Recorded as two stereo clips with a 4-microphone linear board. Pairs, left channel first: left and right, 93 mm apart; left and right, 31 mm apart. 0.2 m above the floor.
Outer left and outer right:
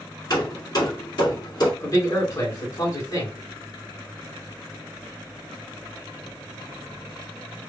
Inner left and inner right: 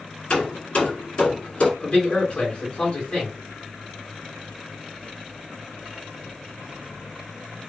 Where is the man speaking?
35° left (ahead or behind), 2 m.